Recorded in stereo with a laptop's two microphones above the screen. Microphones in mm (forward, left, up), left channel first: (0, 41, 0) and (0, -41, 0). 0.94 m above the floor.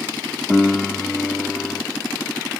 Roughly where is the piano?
Centre.